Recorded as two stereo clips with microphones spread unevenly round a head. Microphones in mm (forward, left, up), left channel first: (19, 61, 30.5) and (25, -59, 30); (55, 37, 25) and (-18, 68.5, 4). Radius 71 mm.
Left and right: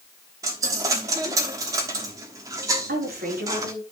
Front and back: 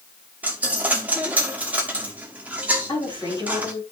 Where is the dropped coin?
115° right, 0.9 m.